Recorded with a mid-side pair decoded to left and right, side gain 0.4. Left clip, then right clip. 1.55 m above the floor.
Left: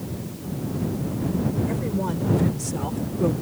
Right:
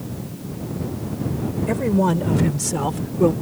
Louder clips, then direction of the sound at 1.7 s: Right 7 dB; 60° right.